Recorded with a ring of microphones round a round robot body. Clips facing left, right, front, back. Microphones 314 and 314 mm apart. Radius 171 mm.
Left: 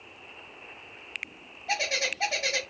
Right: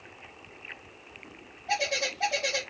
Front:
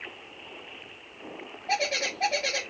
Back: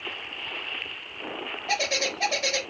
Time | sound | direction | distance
1.7 | a bird | 140° left | 1.4 m